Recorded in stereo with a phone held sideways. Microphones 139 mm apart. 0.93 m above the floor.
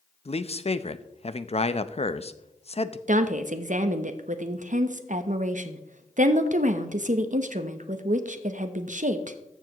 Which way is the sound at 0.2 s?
50° left (ahead or behind).